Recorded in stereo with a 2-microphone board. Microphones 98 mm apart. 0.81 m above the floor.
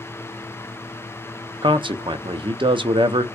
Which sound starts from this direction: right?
A man speaking, at 1.6 s.